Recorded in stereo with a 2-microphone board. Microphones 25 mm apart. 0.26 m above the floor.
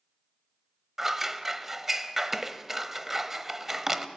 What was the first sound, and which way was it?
Scissors, 15° right (ahead or behind).